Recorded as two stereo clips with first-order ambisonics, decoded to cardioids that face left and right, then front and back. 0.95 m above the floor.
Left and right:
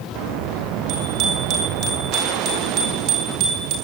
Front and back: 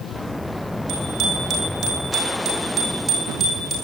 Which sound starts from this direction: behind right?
A bicycle bell, at 0.9 s.